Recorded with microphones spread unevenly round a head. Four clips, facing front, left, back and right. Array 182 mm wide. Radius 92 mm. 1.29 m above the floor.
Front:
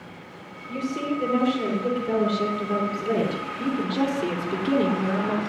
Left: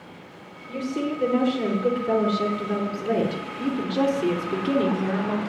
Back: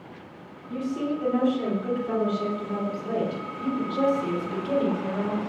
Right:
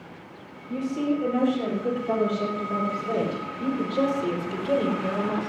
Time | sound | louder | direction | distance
0.7 | a woman speaking | right 2 dB, front 1 dB | 75° left | 5 m